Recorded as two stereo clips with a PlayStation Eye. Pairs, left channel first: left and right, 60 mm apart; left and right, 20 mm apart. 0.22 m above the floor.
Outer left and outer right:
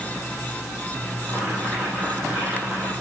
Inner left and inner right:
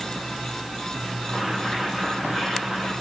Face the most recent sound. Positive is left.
turn(degrees=-25)  # may be behind; listen again after turning